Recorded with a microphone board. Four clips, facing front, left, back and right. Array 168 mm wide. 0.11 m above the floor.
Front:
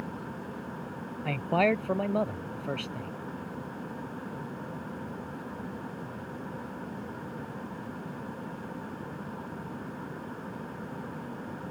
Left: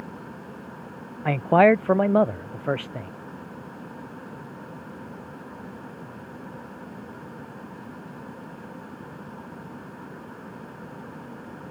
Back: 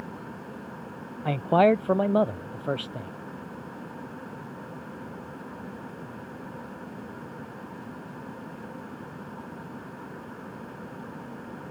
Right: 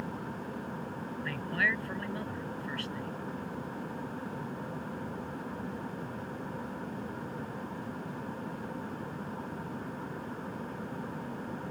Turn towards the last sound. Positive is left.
turn(degrees=110)